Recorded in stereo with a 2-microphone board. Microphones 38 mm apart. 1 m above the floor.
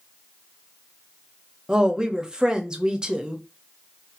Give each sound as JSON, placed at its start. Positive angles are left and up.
{"t": 1.7, "sound": "a woman speaking", "side_deg": -20, "distance_m": 0.6}